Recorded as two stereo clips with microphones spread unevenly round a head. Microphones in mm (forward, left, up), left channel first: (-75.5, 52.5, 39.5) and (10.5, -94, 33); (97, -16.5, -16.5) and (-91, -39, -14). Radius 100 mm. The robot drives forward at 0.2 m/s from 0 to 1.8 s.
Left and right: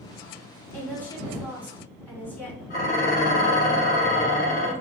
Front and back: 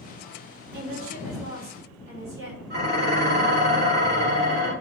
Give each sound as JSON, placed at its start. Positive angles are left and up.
{"t": 0.7, "sound": "a woman speaking", "azimuth_deg": -155, "distance_m": 2.5}
{"t": 2.7, "sound": "dishes clattering", "azimuth_deg": 155, "distance_m": 2.0}